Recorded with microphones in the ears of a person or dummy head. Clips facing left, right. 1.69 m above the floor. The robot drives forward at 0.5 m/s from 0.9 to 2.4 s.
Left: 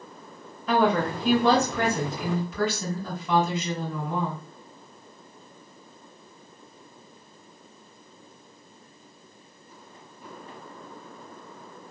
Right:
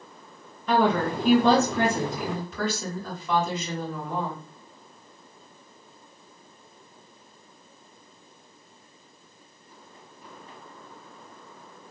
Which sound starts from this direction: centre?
A woman speaking, at 0.7 s.